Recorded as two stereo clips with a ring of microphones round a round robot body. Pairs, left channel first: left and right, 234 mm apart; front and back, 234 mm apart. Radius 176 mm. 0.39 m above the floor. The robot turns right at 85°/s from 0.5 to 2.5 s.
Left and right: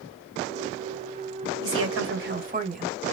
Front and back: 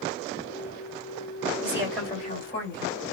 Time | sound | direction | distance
1.6 | a woman speaking | 115° right | 1.9 m